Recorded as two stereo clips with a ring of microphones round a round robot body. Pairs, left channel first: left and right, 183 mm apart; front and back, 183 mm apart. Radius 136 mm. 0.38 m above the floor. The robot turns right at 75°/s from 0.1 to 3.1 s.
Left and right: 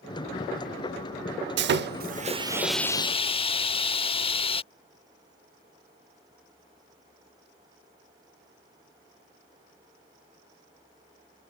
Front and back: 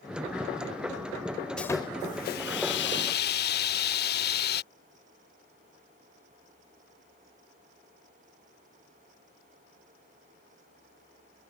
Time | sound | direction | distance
1.6 | sawing | 85° right | ?